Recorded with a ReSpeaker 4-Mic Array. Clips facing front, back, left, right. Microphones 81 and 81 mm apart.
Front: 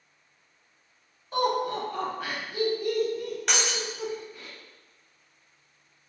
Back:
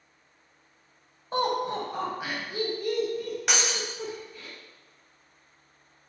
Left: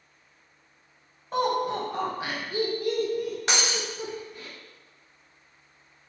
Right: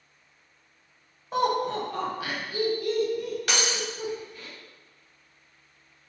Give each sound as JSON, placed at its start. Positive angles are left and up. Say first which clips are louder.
{"t": 1.3, "sound": "laughter", "louder": "front 1 dB, even", "azimuth_deg": -175, "distance_m": 1.1}
{"t": 3.5, "sound": "breaking glass", "louder": "even, even", "azimuth_deg": 95, "distance_m": 0.5}